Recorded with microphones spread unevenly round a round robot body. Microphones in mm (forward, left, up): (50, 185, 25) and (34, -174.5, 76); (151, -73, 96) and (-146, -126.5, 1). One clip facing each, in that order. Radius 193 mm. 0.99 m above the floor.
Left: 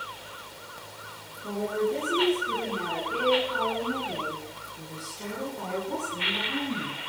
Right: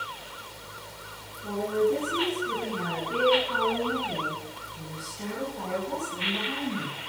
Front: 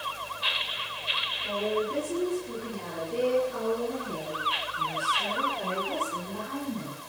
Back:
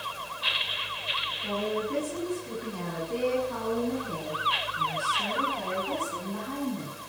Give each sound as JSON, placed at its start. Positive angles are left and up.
{"t": 1.4, "sound": "a woman speaking", "azimuth_deg": -145, "distance_m": 9.0}